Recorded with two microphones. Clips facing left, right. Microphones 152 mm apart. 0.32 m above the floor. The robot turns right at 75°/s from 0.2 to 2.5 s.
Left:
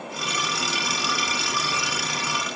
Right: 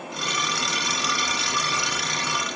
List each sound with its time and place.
Only background noise.